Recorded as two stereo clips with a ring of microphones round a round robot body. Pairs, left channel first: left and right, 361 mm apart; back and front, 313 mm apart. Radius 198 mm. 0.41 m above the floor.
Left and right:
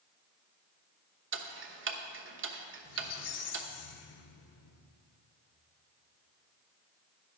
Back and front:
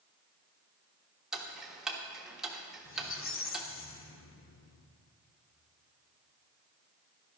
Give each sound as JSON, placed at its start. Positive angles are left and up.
{"t": 1.3, "sound": "ticking", "azimuth_deg": -85, "distance_m": 1.2}
{"t": 2.9, "sound": "a squeak", "azimuth_deg": 135, "distance_m": 1.0}